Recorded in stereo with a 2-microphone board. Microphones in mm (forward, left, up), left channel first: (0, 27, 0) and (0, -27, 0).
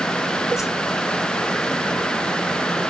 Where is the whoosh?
75° left (ahead or behind), 2.5 m.